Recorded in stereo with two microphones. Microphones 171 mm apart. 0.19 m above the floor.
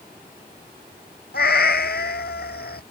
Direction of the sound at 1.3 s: 75° left (ahead or behind).